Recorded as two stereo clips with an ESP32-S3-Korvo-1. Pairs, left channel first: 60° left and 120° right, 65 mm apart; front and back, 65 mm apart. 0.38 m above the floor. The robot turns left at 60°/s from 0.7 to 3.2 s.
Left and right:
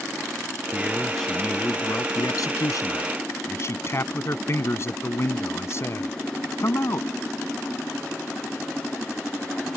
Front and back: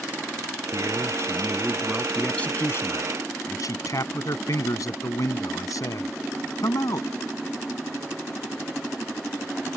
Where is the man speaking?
170° left; by 7.1 s 20° left.